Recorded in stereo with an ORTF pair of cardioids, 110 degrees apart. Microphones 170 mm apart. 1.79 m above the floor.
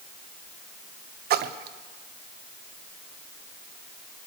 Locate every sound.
1.3 s a splash: 70° right, 1.2 m